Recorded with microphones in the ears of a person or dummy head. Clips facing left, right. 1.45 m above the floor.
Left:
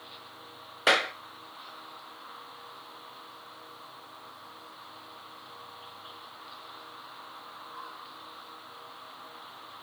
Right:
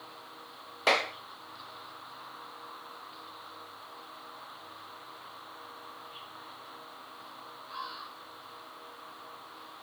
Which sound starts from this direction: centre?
A clap, at 0.9 s.